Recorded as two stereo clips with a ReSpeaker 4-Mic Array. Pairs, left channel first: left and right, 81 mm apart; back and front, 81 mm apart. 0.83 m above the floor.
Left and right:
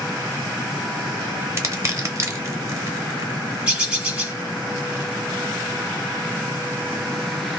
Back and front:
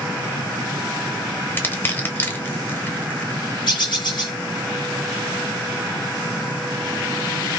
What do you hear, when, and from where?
1.6 s crushing: 125° right, 0.7 m
3.7 s a bird: 160° right, 1.0 m